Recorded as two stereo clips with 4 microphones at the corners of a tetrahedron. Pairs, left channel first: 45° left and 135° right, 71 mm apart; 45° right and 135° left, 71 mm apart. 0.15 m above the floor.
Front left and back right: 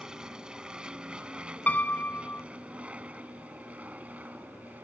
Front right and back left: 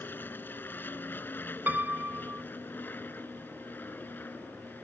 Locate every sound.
0.0 s an aircraft: 65° right; by 4.8 s 85° right
1.7 s a piano: 95° left